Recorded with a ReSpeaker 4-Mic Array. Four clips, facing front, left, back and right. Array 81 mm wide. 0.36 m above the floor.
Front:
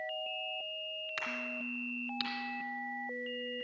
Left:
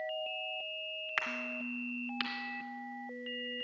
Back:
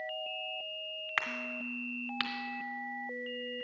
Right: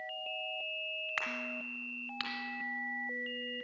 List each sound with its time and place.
1.2 s a crack: 170° left, 1.5 m